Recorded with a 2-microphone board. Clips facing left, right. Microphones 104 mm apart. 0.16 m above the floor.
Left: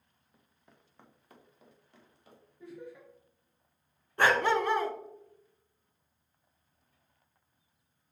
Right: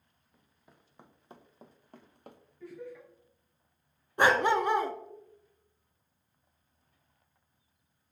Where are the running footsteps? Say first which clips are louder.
Right 1 dB; 5° left (ahead or behind), 1.3 m; by 2.4 s 60° right (ahead or behind), 1.4 m.